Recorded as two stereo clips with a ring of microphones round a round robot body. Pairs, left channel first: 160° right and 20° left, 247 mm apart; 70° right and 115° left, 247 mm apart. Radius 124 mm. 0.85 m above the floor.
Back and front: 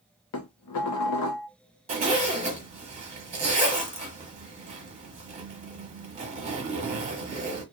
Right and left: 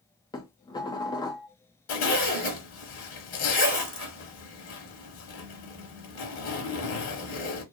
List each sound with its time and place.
0.3 s dishes clattering: 140° right, 0.6 m
1.9 s a zipper: 40° right, 1.0 m